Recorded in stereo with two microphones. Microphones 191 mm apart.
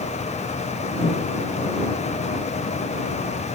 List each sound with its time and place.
1.0 s a microwave: 65° left (ahead or behind)